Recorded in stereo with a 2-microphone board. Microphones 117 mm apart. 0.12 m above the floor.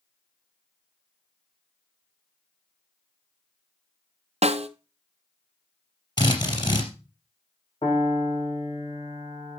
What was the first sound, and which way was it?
A snare drum, 65° right (ahead or behind).